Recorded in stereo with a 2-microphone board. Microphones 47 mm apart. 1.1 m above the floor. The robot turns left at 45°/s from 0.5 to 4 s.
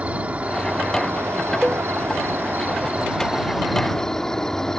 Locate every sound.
0.0 s an insect: 35° right; by 4.8 s 170° left
1.6 s a cowbell: 15° right (ahead or behind); by 1.9 s 5° right (ahead or behind)